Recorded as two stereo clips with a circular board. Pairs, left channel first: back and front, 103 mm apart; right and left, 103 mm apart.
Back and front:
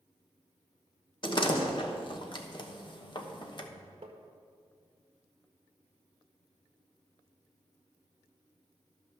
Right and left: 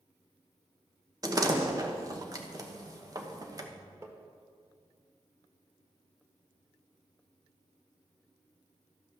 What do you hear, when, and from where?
1.2 s a door slam: 145° left, 1.1 m
4.0 s tapping: 25° left, 1.5 m